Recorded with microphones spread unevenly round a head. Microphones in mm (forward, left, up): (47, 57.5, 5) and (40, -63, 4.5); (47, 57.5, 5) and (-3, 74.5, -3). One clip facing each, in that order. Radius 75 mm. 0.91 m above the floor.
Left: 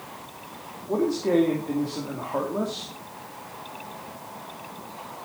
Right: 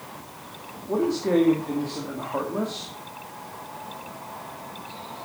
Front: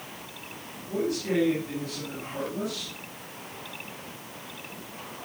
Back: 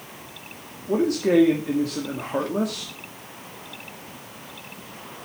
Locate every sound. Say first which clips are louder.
0.9 s a man speaking: even, back 8 dB; 170° left, 2.5 m